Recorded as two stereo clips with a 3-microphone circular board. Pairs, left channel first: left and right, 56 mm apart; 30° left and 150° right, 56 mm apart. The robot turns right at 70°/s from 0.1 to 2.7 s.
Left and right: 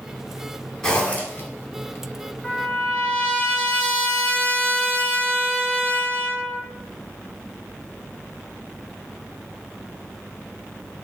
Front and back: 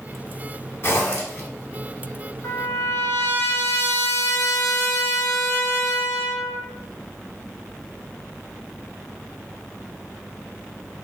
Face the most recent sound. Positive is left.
turn(degrees=20)